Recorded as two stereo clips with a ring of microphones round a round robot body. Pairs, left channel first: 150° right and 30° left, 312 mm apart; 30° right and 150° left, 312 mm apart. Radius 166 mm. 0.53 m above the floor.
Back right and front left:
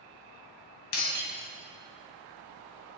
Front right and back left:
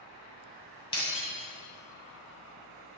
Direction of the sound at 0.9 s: 105° right.